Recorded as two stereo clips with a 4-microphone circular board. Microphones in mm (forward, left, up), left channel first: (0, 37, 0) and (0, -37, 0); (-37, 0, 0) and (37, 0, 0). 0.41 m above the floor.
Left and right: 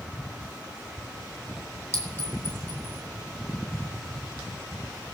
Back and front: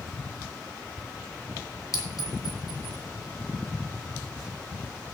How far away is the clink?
About 2.5 m.